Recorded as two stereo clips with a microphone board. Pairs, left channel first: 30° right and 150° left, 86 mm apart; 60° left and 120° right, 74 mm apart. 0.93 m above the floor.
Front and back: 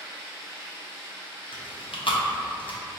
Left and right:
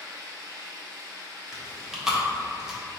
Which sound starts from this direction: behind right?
Running water, at 0.0 s.